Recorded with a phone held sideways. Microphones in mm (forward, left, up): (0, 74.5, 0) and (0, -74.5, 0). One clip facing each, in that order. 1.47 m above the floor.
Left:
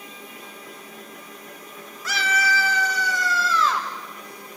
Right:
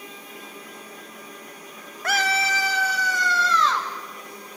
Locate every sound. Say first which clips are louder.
2.0 s a scream: right 1 dB; 60° right (ahead or behind), 0.5 m; by 3.9 s 5° left (ahead or behind), 2 m